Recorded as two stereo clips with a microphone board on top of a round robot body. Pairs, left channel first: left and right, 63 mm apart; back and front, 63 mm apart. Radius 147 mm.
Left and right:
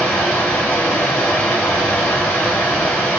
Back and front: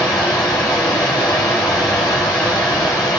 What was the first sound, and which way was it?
Running water, 155° left.